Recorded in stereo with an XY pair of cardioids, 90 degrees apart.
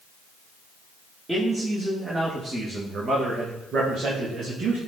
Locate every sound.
1.3 s a man speaking: 20° right, 2.5 m; by 4.8 s 80° right, 2.5 m